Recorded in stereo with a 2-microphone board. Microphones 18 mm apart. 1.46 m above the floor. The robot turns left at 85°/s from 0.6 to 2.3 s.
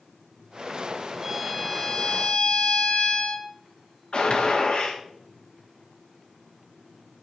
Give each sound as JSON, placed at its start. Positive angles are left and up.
{"t": 1.2, "sound": "a violin", "azimuth_deg": -150, "distance_m": 1.2}
{"t": 4.1, "sound": "a gunshot", "side_deg": 55, "distance_m": 3.0}